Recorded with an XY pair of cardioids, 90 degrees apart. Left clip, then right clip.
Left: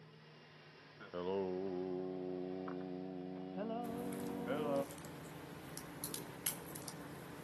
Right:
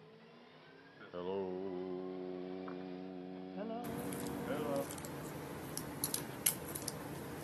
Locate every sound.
1.0 s singing: straight ahead, 0.7 m
3.8 s a crack: 55° right, 0.9 m